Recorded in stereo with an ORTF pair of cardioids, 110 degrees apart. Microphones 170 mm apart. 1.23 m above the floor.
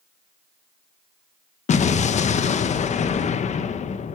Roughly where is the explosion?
Ahead left.